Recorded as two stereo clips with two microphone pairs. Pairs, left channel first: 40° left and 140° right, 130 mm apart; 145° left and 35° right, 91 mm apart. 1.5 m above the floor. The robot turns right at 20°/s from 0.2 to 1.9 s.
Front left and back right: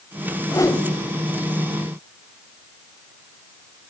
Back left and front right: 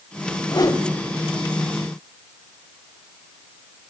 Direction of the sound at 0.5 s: 100° left.